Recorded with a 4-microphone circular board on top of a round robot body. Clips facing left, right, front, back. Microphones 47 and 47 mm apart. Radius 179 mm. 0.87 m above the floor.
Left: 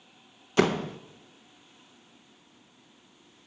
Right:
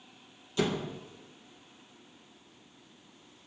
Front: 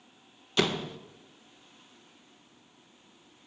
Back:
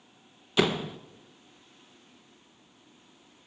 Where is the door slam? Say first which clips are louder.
Left 6 dB, back 2 dB; 100° left, 0.8 m.